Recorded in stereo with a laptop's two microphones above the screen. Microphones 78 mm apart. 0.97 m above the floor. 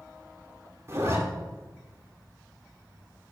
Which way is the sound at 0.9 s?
40° right (ahead or behind).